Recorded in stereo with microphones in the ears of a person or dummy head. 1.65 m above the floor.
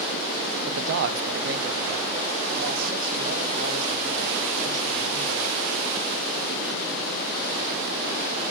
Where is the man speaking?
70° right (ahead or behind), 0.8 m; by 5.5 s 45° right (ahead or behind), 3.5 m.